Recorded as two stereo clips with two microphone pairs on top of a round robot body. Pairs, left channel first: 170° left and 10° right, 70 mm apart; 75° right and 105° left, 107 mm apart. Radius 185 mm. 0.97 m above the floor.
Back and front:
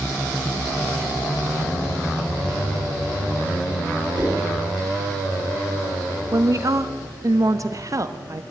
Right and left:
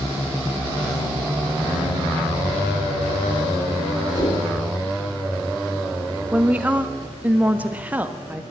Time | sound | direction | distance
4.2 | a whoosh | 25° right | 4 m
6.3 | a woman speaking | 30° left | 1.5 m